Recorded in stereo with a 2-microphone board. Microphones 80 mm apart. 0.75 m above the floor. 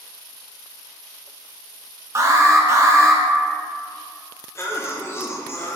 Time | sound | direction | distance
2.1 | an alarm | 35° right (ahead or behind) | 0.6 m
4.5 | a cough | 35° left (ahead or behind) | 0.6 m